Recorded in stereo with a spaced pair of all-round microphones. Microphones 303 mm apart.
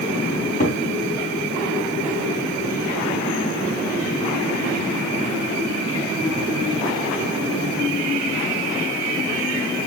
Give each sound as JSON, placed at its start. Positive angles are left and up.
{"t": 0.3, "sound": "a cupboard door", "side_deg": 25, "distance_m": 3.5}